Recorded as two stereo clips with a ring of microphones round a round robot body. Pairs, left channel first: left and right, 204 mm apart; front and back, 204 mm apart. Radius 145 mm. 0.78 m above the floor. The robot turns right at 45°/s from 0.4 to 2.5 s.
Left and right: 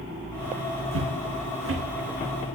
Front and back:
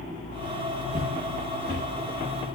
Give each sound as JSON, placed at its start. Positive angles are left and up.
{"t": 0.9, "sound": "footsteps", "azimuth_deg": -115, "distance_m": 3.0}